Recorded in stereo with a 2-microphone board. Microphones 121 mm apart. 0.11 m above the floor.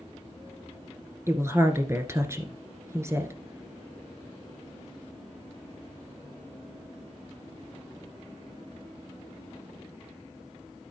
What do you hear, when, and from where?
1.3 s a woman speaking: 20° right (ahead or behind), 1.6 m